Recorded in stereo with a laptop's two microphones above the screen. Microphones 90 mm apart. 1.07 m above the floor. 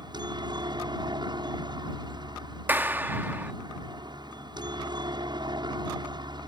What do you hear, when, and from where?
0.0 s a helicopter: 55° right (ahead or behind)
2.7 s a clap: 20° right (ahead or behind)